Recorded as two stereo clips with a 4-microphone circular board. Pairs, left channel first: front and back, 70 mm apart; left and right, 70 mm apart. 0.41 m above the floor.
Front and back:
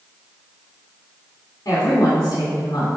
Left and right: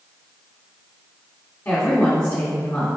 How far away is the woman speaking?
About 3 m.